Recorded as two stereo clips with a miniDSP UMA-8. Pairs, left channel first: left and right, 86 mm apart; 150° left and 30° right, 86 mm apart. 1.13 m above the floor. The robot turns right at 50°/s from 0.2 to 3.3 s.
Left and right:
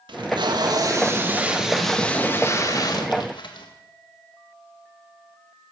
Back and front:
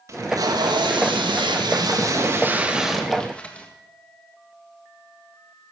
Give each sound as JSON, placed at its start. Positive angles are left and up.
{"t": 0.1, "sound": "tape being pulled", "azimuth_deg": -80, "distance_m": 1.8}